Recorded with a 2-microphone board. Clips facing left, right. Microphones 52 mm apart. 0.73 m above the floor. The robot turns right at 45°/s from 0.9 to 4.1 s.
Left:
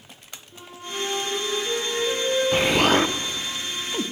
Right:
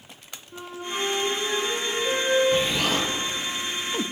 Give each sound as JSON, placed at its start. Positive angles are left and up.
{"t": 0.5, "sound": "a flute", "azimuth_deg": -80, "distance_m": 5.0}
{"t": 2.5, "sound": "an explosion", "side_deg": 65, "distance_m": 0.6}